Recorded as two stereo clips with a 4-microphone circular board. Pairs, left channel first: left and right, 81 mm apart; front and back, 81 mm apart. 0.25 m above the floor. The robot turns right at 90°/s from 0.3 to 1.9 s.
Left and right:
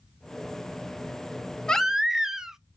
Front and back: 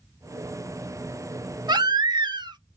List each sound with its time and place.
1.7 s a baby crying: 165° left, 0.5 m; by 2.6 s 175° right, 0.5 m